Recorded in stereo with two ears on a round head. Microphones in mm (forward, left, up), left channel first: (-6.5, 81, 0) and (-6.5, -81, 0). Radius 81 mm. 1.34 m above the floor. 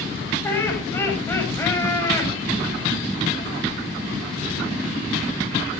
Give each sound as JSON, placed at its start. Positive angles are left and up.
{"t": 0.4, "sound": "laughter", "side_deg": 15, "distance_m": 7.0}